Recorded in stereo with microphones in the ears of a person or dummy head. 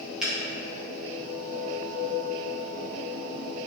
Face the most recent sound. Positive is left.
turn(degrees=-5)  # may be behind; listen again after turning